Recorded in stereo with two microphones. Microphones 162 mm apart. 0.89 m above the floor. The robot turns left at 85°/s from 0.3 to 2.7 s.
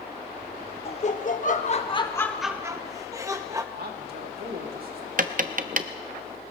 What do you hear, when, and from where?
0.8 s laughter: 135° left, 1.2 m; by 3.6 s 25° right, 1.2 m
3.8 s a man speaking: 65° right (ahead or behind), 2 m
5.2 s tapping: 55° right (ahead or behind), 0.6 m